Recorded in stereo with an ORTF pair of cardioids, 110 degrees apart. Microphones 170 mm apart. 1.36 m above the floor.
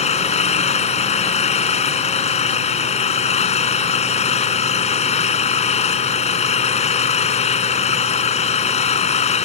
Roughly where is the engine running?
Ahead left.